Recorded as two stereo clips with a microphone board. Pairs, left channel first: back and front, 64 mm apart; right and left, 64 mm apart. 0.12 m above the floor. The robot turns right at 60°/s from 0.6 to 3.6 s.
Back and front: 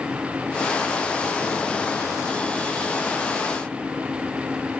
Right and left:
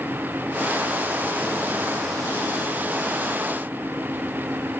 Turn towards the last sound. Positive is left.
No sound to turn to.